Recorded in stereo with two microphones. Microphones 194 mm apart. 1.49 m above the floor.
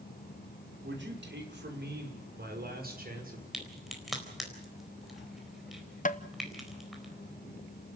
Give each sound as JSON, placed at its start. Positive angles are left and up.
{"t": 0.8, "sound": "a man speaking", "side_deg": -70, "distance_m": 5.5}
{"t": 3.5, "sound": "a crack", "side_deg": 0, "distance_m": 4.0}
{"t": 6.0, "sound": "tapping", "side_deg": 40, "distance_m": 0.9}